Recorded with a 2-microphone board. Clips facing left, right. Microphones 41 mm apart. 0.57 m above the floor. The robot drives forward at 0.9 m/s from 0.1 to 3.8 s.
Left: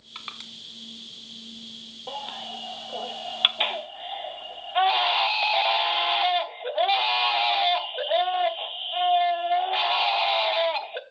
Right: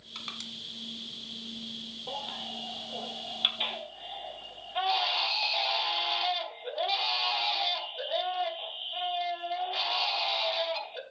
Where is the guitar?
No guitar in this recording.